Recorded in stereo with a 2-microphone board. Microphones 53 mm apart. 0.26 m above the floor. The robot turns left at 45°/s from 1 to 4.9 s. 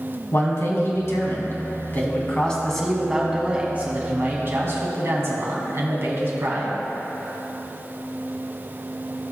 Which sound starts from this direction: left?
A man speaking, at 0.3 s.